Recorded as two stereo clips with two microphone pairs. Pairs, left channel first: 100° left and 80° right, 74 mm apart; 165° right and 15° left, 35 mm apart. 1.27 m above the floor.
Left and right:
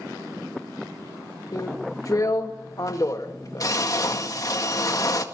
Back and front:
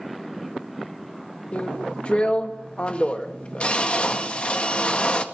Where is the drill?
140° left, 1.8 m.